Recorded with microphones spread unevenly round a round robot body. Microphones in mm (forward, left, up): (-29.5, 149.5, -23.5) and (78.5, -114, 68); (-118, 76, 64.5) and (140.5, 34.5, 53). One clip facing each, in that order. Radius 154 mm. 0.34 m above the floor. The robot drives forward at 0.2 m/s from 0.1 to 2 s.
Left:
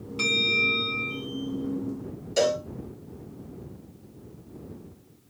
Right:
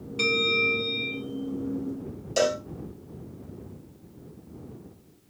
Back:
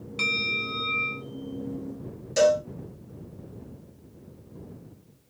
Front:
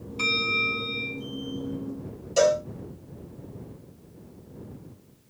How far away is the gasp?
I don't hear a gasp.